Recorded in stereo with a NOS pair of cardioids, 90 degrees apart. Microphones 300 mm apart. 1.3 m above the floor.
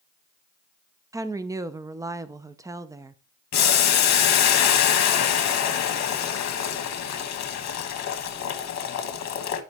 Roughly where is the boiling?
Ahead left.